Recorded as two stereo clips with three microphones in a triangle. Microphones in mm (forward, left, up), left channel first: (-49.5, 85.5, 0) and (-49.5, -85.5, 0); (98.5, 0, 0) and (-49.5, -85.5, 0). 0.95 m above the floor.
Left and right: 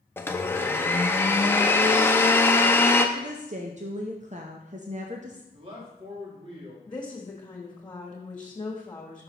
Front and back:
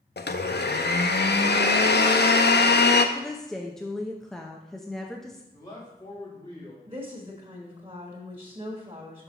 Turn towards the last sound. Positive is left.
turn(degrees=155)